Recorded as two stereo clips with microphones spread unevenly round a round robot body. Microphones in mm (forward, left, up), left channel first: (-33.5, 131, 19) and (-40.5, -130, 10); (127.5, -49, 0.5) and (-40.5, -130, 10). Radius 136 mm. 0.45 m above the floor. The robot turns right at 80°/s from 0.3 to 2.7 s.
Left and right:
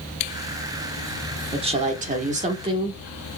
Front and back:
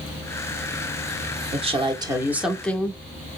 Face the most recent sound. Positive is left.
turn(degrees=-45)